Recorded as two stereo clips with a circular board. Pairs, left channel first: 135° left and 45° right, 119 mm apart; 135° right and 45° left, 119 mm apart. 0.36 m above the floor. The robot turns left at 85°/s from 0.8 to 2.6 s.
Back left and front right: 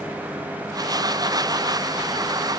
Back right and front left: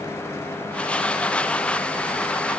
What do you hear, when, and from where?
Only background noise.